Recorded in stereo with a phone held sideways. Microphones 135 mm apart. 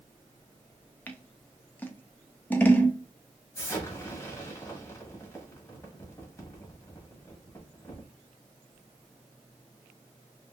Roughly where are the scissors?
Centre.